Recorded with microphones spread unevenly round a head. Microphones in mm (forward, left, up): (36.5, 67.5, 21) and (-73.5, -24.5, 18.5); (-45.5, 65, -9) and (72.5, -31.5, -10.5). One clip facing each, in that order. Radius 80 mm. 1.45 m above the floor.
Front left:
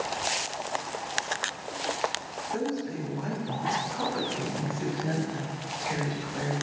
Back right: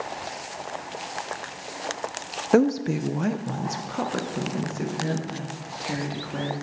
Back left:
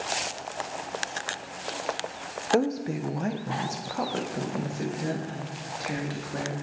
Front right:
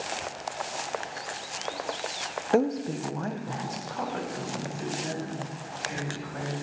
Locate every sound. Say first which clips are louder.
2.5 s a woman speaking: back right 11 dB, even; 125° right, 0.7 m; by 6.5 s 170° right, 3.5 m